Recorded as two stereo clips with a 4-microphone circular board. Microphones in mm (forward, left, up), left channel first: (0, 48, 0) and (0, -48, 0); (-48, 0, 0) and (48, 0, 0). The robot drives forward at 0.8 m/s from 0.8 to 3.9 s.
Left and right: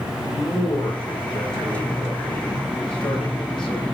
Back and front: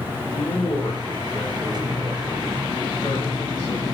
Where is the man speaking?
120° left, 7.5 m; by 3.9 s 135° left, 9 m.